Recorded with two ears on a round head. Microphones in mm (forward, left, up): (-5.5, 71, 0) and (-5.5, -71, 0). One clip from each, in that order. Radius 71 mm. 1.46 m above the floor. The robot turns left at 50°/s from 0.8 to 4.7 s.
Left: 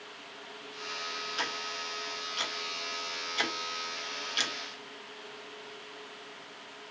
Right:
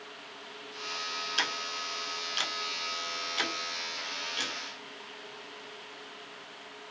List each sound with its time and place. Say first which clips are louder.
1.4 s ticking: right 4 dB; 55° right (ahead or behind), 1.9 m; by 4.5 s 40° left (ahead or behind), 1.9 m